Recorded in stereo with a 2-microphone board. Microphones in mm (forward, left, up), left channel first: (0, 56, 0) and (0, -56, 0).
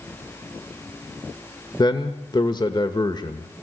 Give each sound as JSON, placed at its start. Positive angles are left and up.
{"t": 1.8, "sound": "a man speaking", "side_deg": 40, "distance_m": 1.2}